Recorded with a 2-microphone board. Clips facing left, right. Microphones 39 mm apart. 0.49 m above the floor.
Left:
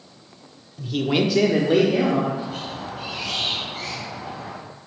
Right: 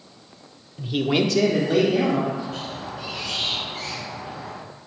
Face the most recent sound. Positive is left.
turn(degrees=60)  # may be behind; listen again after turning